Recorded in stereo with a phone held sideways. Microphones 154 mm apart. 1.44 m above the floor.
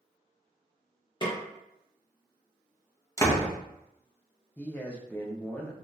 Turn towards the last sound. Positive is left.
turn(degrees=10)  # may be behind; listen again after turning